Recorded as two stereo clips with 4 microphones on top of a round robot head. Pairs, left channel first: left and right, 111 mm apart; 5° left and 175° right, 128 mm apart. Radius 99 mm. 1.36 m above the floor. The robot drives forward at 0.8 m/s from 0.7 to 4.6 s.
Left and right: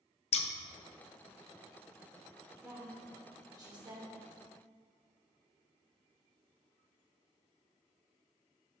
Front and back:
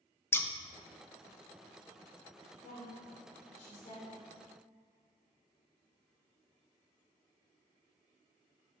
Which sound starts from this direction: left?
Scissors, at 0.3 s.